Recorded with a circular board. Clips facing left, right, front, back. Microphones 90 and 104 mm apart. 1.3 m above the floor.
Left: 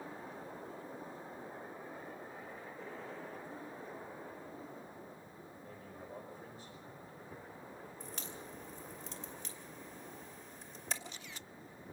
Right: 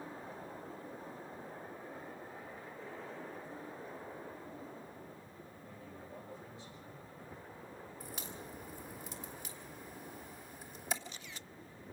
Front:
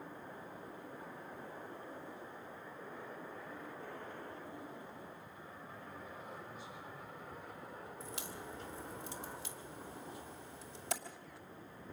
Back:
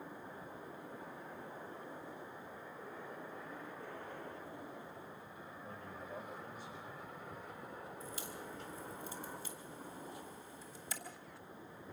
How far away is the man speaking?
About 5.5 m.